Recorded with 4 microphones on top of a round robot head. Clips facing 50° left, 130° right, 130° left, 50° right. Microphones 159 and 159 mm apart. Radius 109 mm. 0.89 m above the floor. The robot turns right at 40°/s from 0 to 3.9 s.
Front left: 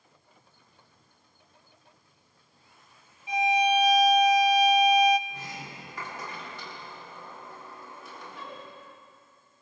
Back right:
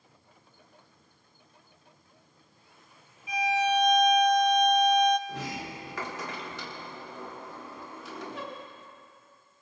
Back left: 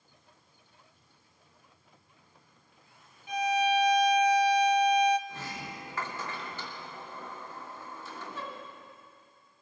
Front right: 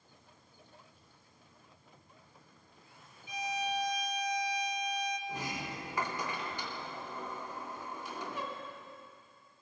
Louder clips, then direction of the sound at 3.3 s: Front left 2 dB, back left 9 dB; 110° left.